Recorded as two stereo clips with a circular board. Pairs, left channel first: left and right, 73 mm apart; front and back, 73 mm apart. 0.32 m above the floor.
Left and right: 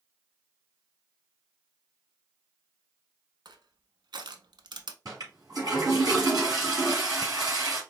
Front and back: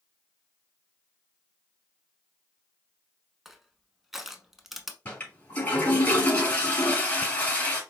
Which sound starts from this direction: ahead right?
A toilet flushing, at 5.0 s.